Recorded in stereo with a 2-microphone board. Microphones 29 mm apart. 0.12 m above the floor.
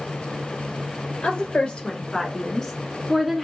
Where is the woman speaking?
45° left (ahead or behind), 1.6 m; by 3.4 s 5° right (ahead or behind), 1.2 m.